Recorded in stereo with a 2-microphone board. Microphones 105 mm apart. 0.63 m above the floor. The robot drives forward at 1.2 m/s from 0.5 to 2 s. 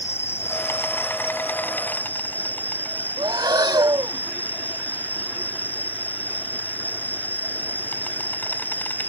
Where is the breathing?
40° right (ahead or behind).